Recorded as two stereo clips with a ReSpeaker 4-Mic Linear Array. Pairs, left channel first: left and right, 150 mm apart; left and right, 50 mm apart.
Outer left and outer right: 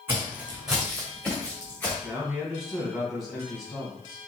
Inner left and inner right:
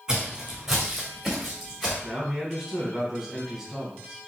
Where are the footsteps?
15° right (ahead or behind), 1.8 m; by 1.9 s 15° left (ahead or behind), 2.5 m.